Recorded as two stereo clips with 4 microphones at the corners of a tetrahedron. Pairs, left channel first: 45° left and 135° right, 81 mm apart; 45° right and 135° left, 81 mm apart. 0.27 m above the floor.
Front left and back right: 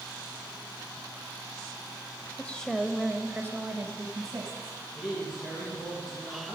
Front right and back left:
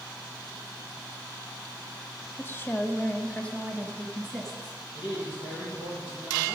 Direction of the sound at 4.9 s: 45° right.